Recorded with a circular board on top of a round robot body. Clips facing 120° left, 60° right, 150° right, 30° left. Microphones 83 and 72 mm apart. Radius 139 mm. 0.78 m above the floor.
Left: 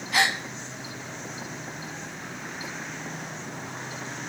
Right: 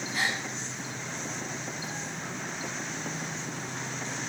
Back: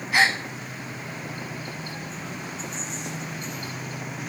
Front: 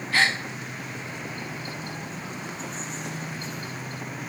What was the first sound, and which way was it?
A gasp, 135° left.